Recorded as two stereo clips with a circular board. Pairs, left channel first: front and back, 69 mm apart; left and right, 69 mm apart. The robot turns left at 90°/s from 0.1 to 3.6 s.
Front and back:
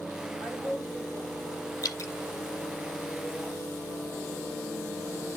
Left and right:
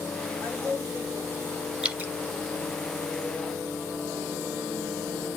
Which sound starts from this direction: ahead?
Dripping, at 1.8 s.